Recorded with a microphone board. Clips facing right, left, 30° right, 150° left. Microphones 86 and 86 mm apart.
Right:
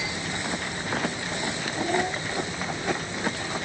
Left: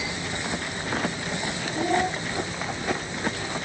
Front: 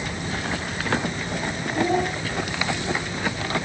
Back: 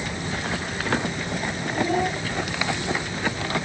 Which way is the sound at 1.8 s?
25° left.